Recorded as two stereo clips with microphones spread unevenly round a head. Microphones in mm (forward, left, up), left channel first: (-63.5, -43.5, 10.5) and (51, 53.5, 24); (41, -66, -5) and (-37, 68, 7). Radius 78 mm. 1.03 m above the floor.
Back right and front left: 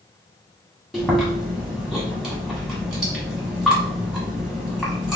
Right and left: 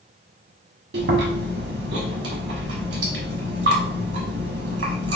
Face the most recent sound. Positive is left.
turn(degrees=125)